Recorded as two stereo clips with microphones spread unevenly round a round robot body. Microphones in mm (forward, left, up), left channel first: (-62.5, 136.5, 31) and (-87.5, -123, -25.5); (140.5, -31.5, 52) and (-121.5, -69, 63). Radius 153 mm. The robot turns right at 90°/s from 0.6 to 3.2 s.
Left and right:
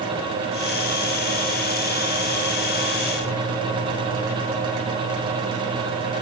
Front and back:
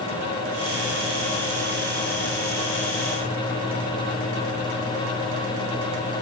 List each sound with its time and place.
Only background noise.